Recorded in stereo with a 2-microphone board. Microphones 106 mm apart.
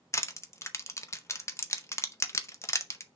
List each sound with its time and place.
0.1 s crushing: 25° left (ahead or behind), 0.6 m